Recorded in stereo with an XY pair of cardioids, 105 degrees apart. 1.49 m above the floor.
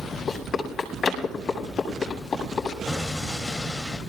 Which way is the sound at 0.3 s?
50° left.